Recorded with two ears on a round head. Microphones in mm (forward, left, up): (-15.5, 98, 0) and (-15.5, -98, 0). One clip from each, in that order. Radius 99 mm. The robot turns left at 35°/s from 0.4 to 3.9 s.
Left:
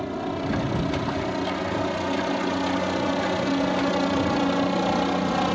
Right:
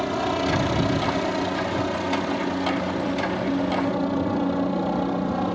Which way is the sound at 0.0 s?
45° right (ahead or behind).